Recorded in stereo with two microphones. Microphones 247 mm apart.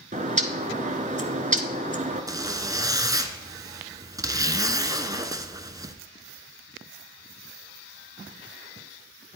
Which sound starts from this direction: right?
A bird, at 0.1 s.